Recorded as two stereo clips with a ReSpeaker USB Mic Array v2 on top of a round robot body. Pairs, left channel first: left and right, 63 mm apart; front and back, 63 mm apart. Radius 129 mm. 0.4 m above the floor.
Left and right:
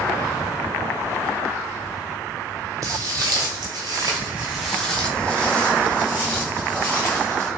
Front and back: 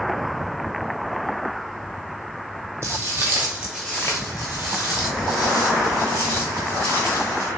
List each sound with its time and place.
2.8 s footsteps: 130° right, 1.1 m; by 7.5 s 25° left, 2.5 m